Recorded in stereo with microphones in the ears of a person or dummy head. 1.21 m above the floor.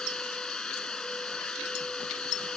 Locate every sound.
0.0 s a machine running: 5° left (ahead or behind)